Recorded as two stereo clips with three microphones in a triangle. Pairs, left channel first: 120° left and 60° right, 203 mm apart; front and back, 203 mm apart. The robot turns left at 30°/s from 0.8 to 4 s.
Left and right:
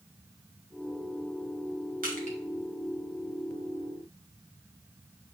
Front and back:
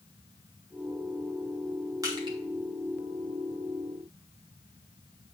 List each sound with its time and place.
2.0 s crushing: 105° right, 2 m; by 2.4 s 115° right, 2 m